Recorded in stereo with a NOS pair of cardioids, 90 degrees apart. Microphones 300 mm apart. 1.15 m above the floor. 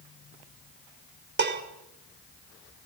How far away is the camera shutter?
No camera shutter in this recording.